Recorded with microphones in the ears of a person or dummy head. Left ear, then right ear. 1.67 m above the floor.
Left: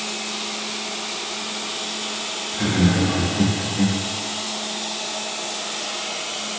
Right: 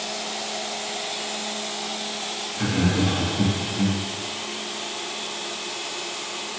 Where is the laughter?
25° left (ahead or behind), 4 m; by 4.0 s 30° left (ahead or behind), 3 m.